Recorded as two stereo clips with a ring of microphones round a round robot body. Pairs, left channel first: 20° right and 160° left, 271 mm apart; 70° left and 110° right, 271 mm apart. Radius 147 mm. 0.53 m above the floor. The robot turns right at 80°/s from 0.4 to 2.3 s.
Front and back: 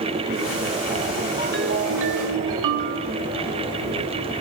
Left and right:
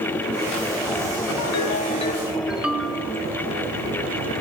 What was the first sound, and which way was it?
A ringtone, 85° left.